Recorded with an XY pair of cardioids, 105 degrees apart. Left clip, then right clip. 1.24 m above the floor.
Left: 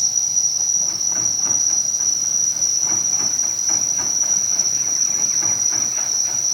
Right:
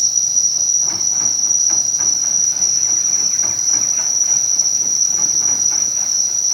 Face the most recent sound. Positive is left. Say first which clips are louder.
# right 3 dB
turn(degrees=-25)